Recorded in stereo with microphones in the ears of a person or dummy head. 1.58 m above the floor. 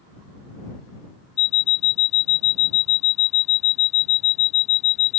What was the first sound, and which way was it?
An alarm clock, 35° left (ahead or behind).